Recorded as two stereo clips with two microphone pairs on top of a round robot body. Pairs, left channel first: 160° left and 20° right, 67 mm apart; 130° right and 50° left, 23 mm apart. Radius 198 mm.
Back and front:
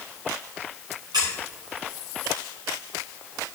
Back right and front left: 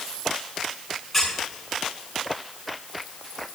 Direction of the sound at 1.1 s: 45° right.